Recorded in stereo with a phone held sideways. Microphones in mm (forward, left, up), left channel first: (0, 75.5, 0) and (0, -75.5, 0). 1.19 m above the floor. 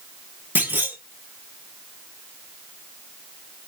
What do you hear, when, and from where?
0.6 s a clunk: 15° right (ahead or behind), 2 m